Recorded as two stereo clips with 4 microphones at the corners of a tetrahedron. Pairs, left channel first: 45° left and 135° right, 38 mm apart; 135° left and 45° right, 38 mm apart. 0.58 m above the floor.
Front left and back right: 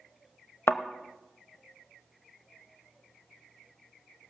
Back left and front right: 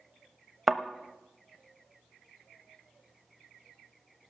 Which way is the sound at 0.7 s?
40° left.